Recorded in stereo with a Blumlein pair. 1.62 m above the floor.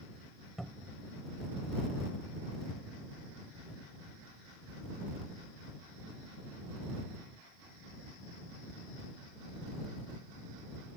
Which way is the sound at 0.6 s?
5° right.